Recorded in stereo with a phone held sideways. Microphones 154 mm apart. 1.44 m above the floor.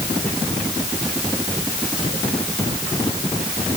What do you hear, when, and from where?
Only background noise.